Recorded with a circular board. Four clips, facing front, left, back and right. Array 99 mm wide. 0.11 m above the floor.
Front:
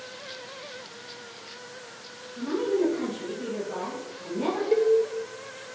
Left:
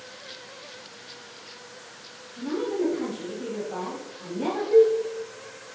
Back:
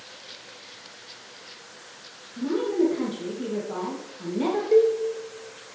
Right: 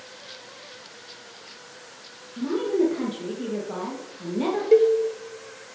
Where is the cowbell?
85° right, 1.2 m.